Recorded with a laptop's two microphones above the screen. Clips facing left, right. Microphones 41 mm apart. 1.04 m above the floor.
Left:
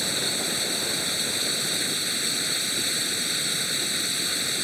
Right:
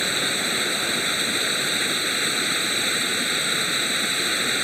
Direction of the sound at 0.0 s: 40° right (ahead or behind).